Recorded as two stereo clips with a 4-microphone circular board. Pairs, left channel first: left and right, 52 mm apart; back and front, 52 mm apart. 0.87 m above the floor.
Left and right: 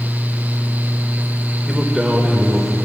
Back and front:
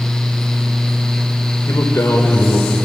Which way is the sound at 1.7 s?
170° right.